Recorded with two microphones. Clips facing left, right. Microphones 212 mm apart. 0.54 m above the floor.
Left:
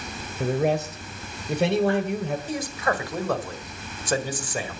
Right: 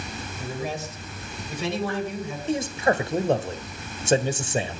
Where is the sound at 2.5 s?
25° right (ahead or behind), 2.0 m.